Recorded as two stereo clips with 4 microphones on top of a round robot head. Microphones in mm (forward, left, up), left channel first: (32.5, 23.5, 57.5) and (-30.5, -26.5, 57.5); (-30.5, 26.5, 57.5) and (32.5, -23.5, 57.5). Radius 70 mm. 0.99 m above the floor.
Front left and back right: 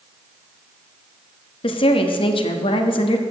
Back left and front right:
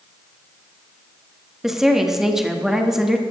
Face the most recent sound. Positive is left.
turn(degrees=50)